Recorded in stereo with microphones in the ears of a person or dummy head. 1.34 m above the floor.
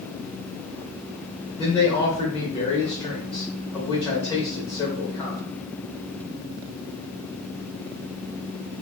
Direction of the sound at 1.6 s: 15° left (ahead or behind).